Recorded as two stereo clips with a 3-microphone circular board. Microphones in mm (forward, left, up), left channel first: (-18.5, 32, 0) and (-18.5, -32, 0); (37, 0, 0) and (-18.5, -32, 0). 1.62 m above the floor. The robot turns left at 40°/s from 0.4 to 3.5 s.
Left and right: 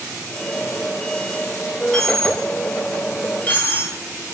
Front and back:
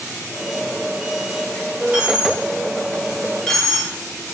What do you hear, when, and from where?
1.9 s a dropped coin: 165° left, 1.2 m; by 3.9 s 105° left, 1.2 m